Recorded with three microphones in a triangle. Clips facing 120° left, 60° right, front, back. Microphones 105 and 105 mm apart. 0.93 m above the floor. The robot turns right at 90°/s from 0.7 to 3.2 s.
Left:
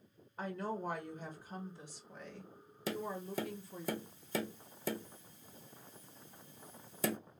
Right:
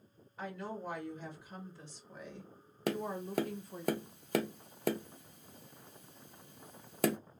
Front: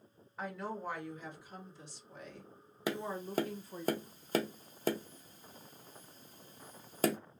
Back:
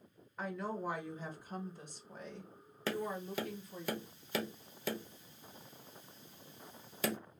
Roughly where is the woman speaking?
Left.